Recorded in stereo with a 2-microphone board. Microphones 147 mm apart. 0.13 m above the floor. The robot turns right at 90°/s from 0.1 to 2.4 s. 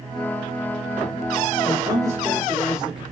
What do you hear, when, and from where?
1.6 s a man speaking: 75° right, 1.8 m; by 3.0 s 10° right, 1.8 m